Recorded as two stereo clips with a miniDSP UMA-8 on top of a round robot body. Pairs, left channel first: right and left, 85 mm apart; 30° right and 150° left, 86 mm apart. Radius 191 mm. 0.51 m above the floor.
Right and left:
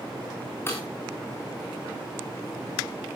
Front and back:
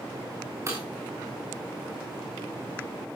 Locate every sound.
0.7 s breaking glass: 155° right, 6.5 m